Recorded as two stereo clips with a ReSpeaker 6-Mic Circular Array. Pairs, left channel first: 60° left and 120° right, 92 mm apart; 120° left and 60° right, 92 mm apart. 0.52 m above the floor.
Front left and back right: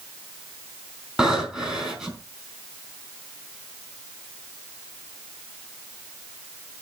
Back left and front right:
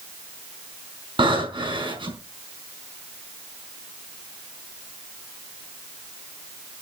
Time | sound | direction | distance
1.2 | breathing | 40° right | 4 m